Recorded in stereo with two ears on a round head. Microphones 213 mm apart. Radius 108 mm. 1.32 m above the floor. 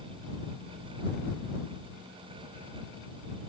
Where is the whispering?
I don't hear whispering.